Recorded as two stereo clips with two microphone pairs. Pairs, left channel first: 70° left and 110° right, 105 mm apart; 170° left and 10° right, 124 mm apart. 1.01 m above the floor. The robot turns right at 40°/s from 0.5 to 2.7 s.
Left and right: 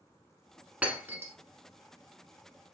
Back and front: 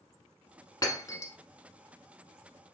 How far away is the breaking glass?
About 1.0 m.